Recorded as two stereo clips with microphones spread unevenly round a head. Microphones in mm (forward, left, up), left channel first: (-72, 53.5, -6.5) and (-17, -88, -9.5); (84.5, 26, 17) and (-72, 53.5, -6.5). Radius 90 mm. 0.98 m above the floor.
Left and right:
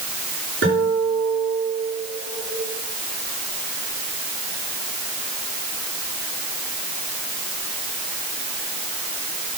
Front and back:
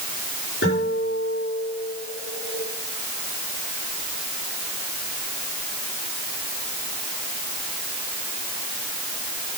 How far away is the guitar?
About 7 m.